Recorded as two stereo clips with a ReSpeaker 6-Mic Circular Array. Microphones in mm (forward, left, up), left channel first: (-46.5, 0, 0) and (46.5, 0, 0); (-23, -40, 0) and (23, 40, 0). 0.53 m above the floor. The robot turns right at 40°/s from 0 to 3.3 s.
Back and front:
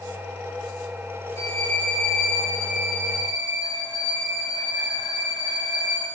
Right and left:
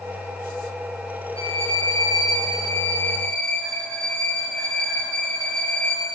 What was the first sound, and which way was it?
A violin, 120° right.